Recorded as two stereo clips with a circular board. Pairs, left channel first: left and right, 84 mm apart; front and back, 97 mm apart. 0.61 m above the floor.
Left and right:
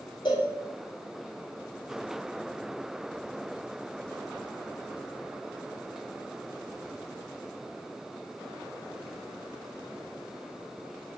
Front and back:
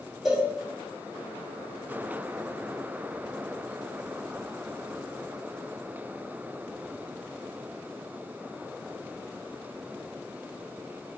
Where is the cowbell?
95° left, 1.5 m.